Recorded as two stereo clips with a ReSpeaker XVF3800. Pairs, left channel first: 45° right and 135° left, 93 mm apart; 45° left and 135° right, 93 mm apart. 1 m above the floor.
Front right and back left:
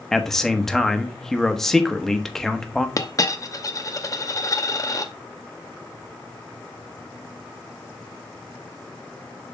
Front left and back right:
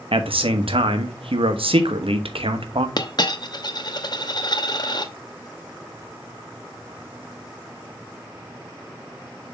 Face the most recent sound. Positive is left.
turn(degrees=5)